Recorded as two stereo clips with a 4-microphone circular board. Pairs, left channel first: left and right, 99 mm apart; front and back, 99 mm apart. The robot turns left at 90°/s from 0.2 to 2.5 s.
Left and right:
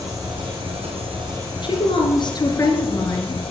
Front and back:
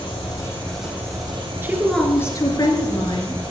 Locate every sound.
0.0 s an engine running: 35° right, 6 m; by 3.5 s 120° left, 6 m
1.6 s a woman speaking: 120° left, 2.5 m; by 3.4 s 40° left, 2.5 m